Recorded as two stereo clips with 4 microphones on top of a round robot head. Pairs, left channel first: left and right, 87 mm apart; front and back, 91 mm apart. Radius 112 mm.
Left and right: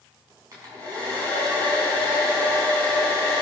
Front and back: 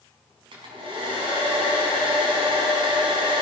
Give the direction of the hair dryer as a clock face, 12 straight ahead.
5 o'clock.